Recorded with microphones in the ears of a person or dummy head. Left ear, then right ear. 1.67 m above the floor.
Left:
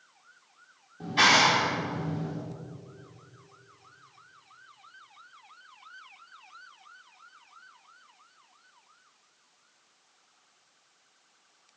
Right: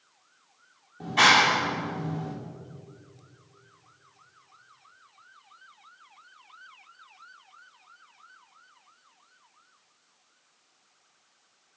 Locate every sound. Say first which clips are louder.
1.0 s a clap: right 2 dB; 25° right (ahead or behind), 5 m